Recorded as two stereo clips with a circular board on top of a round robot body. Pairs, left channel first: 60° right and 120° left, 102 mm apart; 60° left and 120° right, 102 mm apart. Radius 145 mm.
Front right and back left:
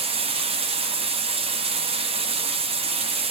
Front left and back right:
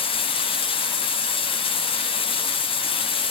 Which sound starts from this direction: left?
Running water, at 0.0 s.